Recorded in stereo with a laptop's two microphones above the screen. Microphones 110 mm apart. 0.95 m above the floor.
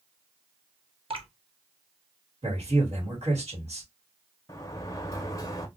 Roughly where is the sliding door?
Left.